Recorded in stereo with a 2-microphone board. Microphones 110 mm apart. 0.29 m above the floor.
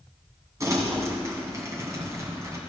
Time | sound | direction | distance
0.6 | crumpling | 30° right (ahead or behind) | 2.5 m